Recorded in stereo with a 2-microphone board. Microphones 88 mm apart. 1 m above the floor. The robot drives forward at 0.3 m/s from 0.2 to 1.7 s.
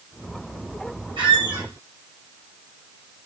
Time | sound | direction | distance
1.2 | a squeak | 65° right (ahead or behind) | 0.9 m